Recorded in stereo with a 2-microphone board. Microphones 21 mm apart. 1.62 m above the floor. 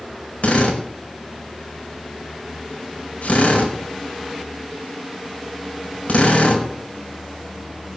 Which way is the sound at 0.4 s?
80° left.